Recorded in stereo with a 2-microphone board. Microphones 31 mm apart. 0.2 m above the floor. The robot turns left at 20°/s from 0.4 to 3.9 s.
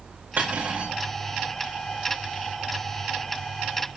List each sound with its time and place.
0.4 s cutlery clinking: 75° right (ahead or behind), 9 m; by 0.9 s 60° right (ahead or behind), 9 m